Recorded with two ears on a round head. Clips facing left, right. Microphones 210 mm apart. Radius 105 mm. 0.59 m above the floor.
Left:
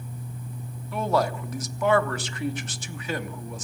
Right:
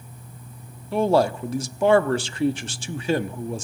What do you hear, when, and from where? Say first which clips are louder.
0.9 s a man speaking: right 6 dB; 25° right (ahead or behind), 0.7 m